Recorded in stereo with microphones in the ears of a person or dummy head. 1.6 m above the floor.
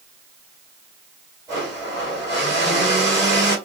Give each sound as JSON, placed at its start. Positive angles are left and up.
{"t": 1.5, "sound": "a blender", "side_deg": -20, "distance_m": 1.5}